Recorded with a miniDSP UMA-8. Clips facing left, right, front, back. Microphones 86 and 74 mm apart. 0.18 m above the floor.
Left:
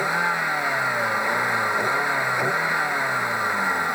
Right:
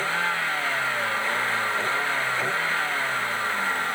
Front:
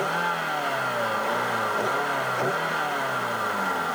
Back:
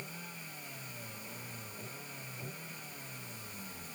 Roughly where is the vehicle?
Ahead.